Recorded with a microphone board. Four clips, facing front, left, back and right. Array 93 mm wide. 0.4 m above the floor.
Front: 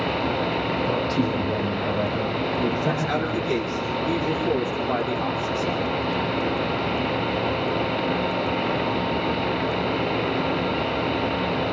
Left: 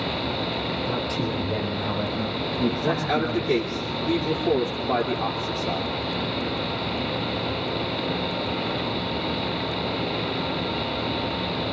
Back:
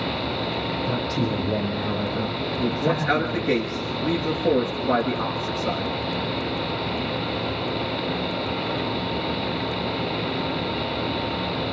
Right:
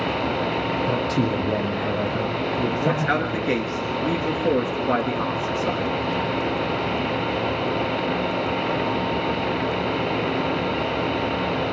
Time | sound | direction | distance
0.9 | a man speaking | 90° right | 9.5 m
2.8 | a man speaking | 125° right | 7 m